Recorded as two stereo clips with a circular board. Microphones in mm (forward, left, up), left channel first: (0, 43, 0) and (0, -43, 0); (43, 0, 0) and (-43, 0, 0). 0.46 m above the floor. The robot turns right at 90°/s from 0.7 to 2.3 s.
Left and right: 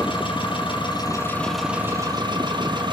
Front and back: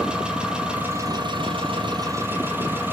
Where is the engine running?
100° left, 8.5 m; by 2.9 s 115° right, 8.5 m.